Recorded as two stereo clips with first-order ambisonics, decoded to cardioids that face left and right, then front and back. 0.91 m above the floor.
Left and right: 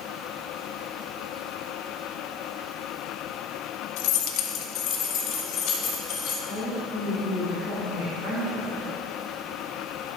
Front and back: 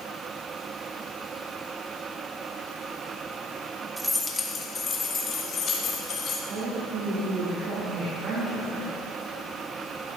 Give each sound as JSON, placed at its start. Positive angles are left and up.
{"t": 4.0, "sound": "keys jangling", "azimuth_deg": 95, "distance_m": 0.7}
{"t": 6.5, "sound": "a woman speaking", "azimuth_deg": -135, "distance_m": 2.5}